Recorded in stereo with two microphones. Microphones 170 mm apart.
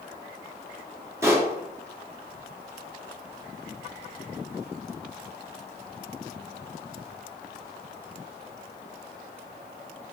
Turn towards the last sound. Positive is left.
turn(degrees=-15)  # may be behind; listen again after turning